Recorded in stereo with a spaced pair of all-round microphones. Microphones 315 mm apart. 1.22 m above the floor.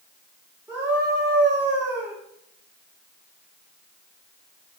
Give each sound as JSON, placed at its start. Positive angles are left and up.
{"t": 0.7, "sound": "a scream", "side_deg": -5, "distance_m": 4.0}